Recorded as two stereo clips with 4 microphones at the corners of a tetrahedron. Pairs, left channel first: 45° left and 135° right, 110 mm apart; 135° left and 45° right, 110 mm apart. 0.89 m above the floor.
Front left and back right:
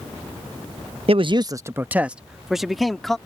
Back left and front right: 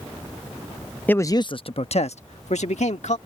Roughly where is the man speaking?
Behind right.